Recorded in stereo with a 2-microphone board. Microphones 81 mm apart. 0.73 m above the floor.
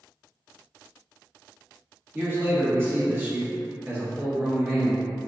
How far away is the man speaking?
About 1.6 m.